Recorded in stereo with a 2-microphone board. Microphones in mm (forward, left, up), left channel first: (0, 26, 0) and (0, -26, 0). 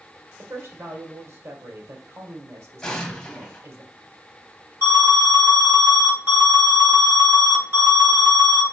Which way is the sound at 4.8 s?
50° right (ahead or behind).